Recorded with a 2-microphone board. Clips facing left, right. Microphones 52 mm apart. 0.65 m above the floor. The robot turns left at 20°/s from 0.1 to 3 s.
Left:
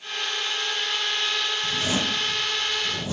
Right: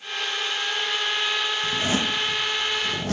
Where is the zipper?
40° right (ahead or behind), 1.4 m; by 3.1 s 65° right (ahead or behind), 1.4 m.